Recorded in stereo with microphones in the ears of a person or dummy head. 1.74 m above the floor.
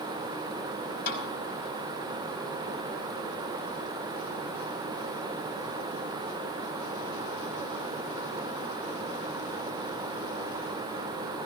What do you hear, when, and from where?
1.1 s a snare drum: 55° left (ahead or behind), 4.5 m